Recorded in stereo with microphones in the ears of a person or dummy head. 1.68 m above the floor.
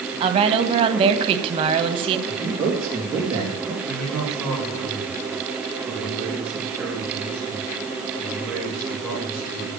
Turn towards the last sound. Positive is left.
turn(degrees=-5)  # may be behind; listen again after turning